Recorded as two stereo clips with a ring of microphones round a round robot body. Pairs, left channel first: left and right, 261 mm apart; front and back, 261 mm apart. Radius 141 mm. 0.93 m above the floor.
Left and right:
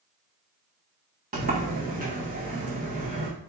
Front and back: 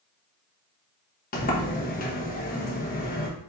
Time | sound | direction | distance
1.3 | a sliding door | 40° right | 1.1 m